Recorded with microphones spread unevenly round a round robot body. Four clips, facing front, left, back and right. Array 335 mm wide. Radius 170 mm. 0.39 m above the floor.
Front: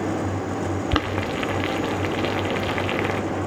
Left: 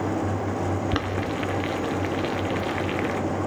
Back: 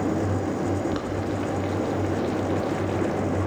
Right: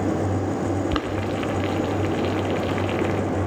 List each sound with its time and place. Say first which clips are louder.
0.9 s boiling: right 2 dB, front 2 dB; 10° right, 0.8 m